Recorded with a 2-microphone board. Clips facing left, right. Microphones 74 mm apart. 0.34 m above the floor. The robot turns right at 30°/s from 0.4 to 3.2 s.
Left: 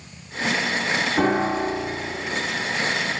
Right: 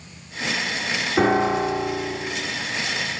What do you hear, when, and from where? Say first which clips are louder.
1.2 s a piano: right 4 dB; 20° right (ahead or behind), 1.8 m; by 2.2 s 50° right (ahead or behind), 1.8 m